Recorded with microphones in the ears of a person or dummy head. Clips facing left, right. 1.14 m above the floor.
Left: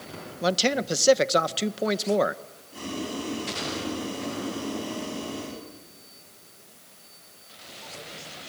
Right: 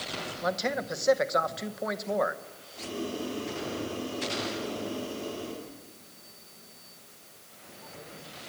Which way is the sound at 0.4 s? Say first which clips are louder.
Left 6 dB; 40° left (ahead or behind).